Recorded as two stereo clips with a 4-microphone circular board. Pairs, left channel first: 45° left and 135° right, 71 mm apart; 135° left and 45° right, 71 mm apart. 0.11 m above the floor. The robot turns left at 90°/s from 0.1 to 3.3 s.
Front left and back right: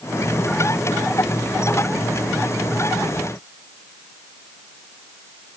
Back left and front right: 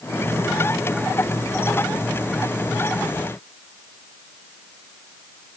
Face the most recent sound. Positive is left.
No sound to turn to.